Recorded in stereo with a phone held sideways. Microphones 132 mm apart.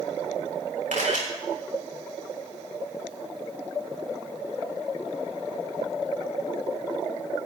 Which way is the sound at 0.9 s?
70° right (ahead or behind).